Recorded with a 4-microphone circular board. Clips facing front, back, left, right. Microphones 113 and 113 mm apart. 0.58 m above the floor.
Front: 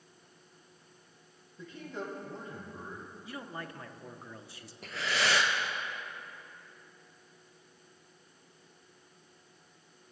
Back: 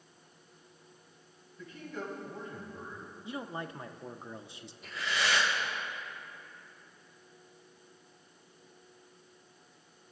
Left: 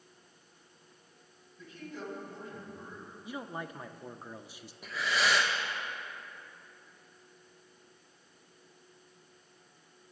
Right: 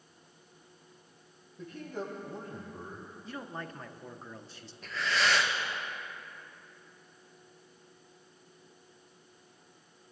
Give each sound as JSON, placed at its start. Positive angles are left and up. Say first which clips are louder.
{"t": 1.6, "sound": "a man speaking", "louder": "front 1 dB, right 4 dB", "azimuth_deg": -60, "distance_m": 5.5}
{"t": 3.2, "sound": "a man speaking", "louder": "back 4 dB, left 2 dB", "azimuth_deg": 150, "distance_m": 0.7}
{"t": 4.8, "sound": "breathing", "louder": "front 1 dB, even", "azimuth_deg": 10, "distance_m": 2.5}